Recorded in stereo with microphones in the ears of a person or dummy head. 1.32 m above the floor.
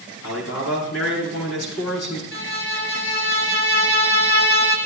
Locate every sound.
0.2 s a man speaking: 75° left (ahead or behind), 7.5 m
2.3 s a violin: 50° left (ahead or behind), 4 m